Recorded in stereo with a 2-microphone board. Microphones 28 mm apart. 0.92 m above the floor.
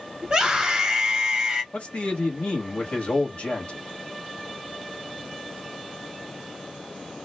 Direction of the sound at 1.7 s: 55° left (ahead or behind).